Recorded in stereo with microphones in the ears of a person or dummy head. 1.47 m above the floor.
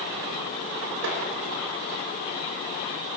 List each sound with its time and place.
1.0 s tapping: 70° right (ahead or behind), 5.5 m